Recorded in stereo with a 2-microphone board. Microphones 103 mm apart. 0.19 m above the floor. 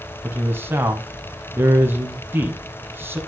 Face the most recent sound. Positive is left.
turn(degrees=-20)  # may be behind; listen again after turning